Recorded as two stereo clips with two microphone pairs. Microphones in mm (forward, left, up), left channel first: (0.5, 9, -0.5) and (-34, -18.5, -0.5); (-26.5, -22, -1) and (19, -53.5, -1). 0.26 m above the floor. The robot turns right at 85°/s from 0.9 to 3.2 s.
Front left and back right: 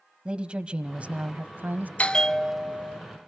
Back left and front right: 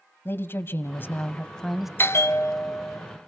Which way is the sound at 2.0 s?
100° left.